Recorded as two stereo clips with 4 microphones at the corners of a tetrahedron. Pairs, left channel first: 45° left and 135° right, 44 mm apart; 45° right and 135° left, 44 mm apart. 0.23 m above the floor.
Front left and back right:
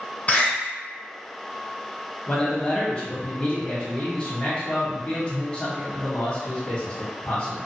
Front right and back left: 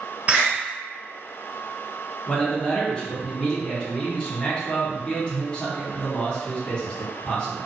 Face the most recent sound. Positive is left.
turn(degrees=5)